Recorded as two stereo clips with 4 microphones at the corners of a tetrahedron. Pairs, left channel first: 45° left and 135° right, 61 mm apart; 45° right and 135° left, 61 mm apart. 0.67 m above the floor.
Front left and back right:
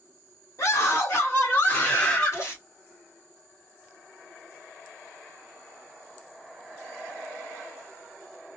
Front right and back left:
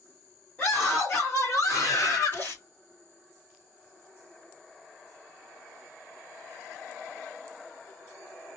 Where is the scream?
10° left, 1.9 m; by 2.4 s 30° right, 2 m.